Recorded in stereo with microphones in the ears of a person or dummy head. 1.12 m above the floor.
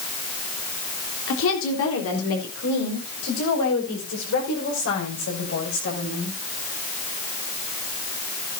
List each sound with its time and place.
1.3 s a woman speaking: 75° left (ahead or behind), 3.5 m